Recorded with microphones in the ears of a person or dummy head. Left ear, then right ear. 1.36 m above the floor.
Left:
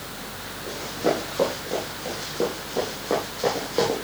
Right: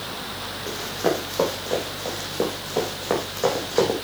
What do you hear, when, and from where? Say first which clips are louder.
0.7 s running footsteps: even; 65° right (ahead or behind), 4.5 m; by 4.0 s 70° right (ahead or behind), 4.5 m